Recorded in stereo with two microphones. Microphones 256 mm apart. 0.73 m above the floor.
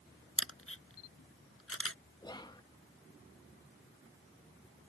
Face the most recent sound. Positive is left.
turn(degrees=15)  # may be behind; listen again after turning